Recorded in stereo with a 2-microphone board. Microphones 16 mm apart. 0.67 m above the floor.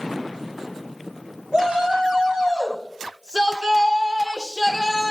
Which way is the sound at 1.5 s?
75° right (ahead or behind).